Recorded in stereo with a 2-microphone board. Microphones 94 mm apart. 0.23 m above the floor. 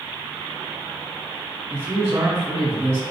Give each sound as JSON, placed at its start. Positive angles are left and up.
{"t": 1.7, "sound": "a man speaking", "side_deg": -20, "distance_m": 2.0}